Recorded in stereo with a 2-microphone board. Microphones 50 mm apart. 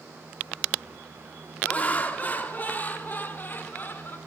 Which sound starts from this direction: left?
Laughter, at 1.6 s.